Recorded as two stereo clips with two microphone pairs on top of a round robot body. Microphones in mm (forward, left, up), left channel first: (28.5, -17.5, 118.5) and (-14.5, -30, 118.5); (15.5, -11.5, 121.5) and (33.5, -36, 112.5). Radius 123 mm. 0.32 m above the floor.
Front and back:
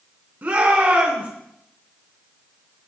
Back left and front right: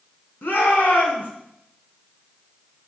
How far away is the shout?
About 4 m.